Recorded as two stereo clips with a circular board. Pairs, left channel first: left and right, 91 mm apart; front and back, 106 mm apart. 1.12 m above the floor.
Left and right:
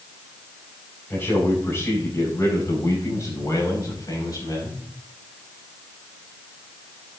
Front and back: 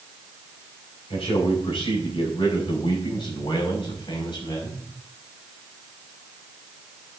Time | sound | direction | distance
1.1 | a man speaking | 25° left | 6 m